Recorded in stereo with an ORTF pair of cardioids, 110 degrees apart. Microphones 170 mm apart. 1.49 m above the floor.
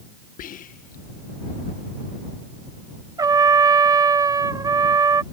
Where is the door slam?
I don't hear a door slam.